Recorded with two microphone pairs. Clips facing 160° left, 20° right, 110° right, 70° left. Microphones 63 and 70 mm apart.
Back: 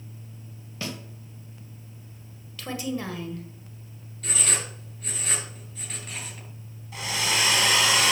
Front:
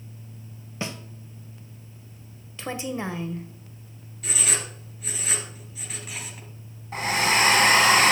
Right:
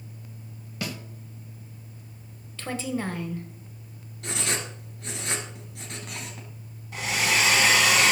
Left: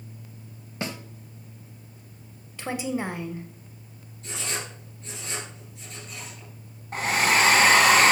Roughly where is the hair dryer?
Ahead left.